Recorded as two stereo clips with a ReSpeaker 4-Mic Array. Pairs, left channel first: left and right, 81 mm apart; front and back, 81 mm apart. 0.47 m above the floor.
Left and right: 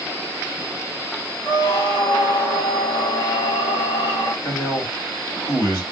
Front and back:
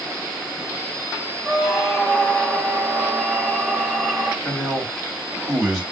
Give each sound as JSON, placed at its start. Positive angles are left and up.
{"t": 1.4, "sound": "a squeak", "azimuth_deg": 85, "distance_m": 1.1}
{"t": 4.4, "sound": "a man speaking", "azimuth_deg": 85, "distance_m": 2.5}